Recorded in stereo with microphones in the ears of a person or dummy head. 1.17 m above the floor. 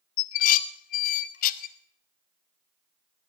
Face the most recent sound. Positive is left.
turn(degrees=45)  # may be behind; listen again after turning